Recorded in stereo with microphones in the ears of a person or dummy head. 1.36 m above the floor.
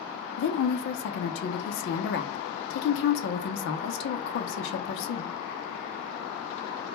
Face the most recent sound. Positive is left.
turn(degrees=60)  # may be behind; listen again after turning